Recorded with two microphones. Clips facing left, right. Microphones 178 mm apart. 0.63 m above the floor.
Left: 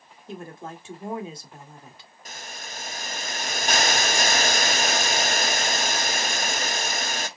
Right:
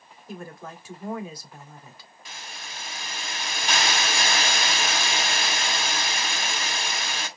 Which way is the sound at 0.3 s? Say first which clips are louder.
Left 1 dB; 25° left (ahead or behind).